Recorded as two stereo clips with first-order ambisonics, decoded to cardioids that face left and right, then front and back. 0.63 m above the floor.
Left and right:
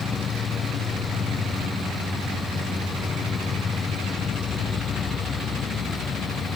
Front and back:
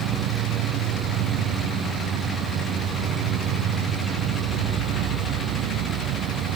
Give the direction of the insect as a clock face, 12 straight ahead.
7 o'clock.